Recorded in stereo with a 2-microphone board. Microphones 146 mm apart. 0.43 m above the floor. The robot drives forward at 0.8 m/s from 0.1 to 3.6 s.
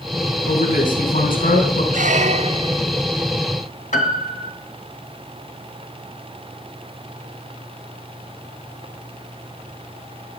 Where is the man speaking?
75° left (ahead or behind), 3.5 m; by 1.8 s 70° left (ahead or behind), 3.5 m.